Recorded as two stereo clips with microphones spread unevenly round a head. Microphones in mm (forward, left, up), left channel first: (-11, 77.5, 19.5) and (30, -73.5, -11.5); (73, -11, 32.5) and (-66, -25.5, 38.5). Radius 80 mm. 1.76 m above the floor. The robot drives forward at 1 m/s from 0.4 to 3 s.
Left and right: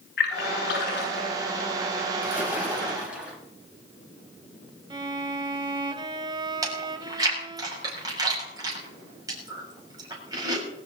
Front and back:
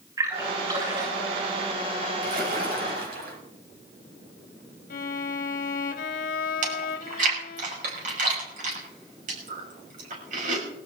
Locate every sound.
0.2 s a splash: 120° left, 7.5 m; by 1.3 s 125° left, 8 m
2.2 s a splash: 160° right, 4 m; by 3.4 s 165° right, 4.5 m
4.9 s a violin: 10° right, 1.3 m
6.6 s chewing: 145° right, 6 m